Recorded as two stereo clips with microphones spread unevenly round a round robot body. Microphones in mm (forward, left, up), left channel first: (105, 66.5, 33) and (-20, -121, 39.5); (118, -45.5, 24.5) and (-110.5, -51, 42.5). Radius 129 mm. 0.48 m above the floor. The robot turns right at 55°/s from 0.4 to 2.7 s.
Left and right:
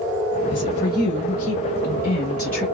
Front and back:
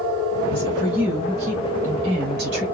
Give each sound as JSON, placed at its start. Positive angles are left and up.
{"t": 0.5, "sound": "a woman speaking", "azimuth_deg": 25, "distance_m": 2.5}